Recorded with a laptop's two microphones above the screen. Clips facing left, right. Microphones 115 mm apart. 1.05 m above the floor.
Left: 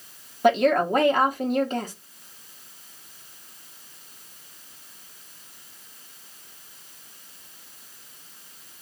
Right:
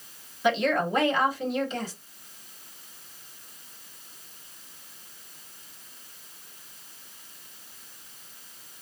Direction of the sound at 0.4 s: 50° left (ahead or behind).